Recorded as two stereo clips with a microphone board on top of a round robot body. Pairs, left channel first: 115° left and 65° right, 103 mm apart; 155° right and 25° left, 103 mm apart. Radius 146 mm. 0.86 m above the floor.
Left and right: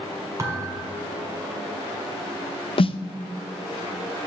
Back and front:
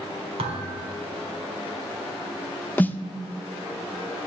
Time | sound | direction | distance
0.4 | a thud | 5° right | 1.7 m
2.8 | a snare drum | 130° left | 0.6 m